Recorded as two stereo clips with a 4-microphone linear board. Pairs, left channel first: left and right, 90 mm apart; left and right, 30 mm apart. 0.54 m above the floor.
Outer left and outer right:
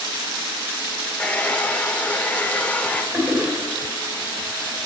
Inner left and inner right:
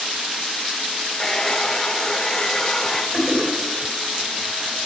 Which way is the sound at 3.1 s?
20° right (ahead or behind).